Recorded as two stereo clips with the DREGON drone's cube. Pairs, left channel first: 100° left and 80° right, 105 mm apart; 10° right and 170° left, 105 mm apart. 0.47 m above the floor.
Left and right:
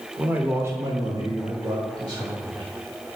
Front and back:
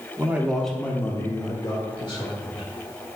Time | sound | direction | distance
0.2 | a man speaking | 145° right | 0.9 m